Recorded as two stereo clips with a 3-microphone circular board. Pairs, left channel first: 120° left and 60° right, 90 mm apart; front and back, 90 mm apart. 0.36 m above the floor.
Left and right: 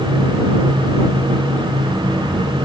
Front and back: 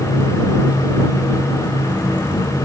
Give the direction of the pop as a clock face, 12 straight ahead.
No pop in this recording.